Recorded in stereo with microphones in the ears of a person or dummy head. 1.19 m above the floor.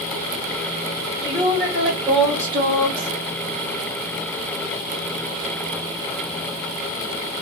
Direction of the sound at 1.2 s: 15° left (ahead or behind).